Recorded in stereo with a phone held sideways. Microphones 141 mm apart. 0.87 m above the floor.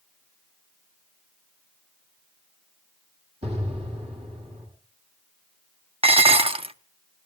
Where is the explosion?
50° right (ahead or behind), 8.5 m.